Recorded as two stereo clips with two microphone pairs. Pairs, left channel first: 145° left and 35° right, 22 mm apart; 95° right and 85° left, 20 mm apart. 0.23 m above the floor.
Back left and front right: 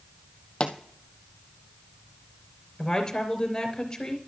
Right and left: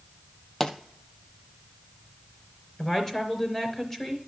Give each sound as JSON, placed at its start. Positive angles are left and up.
{"t": 0.6, "sound": "a pop", "azimuth_deg": -175, "distance_m": 1.2}
{"t": 2.8, "sound": "a woman speaking", "azimuth_deg": -160, "distance_m": 3.5}